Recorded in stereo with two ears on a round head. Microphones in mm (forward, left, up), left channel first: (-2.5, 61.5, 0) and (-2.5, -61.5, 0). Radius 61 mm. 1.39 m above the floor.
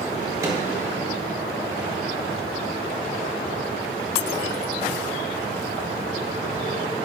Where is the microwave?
25° right (ahead or behind), 2 m.